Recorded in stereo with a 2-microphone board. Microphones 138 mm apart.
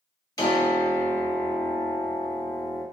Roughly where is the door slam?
No door slam in this recording.